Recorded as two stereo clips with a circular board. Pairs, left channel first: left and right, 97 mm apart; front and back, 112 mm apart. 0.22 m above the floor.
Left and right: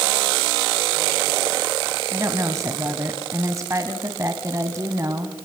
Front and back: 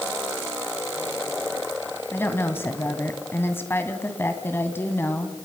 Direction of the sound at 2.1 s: 55° right.